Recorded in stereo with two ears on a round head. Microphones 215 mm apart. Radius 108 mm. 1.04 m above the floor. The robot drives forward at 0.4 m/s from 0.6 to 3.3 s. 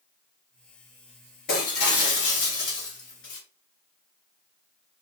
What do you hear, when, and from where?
1.5 s breaking glass: 45° left (ahead or behind), 2 m; by 3.4 s 55° left (ahead or behind), 1.8 m